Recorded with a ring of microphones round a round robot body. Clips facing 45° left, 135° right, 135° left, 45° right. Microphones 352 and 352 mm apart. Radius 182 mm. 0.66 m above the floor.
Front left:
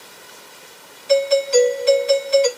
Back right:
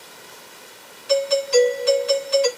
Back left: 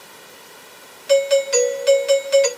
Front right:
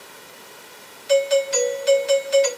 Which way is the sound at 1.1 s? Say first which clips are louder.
Front left 3 dB, back left 3 dB; 155° left.